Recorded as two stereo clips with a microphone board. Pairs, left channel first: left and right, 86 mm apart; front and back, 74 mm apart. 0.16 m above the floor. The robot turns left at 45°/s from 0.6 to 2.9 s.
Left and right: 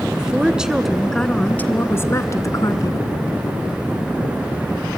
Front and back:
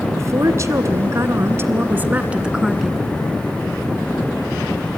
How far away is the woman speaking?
About 1.4 m.